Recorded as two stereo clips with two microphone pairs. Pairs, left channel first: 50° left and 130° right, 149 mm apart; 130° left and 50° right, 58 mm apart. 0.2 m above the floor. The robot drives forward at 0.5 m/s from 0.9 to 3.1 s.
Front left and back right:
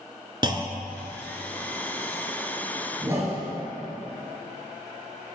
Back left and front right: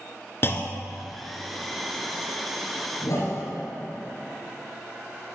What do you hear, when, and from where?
0.4 s a clunk: 170° left, 0.8 m; by 1.1 s 175° left, 0.9 m
3.0 s a whoosh: 160° left, 2.5 m